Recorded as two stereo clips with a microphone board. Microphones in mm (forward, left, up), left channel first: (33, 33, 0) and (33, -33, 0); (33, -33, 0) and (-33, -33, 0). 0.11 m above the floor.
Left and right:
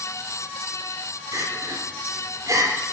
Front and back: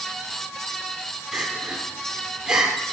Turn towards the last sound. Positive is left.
turn(degrees=-105)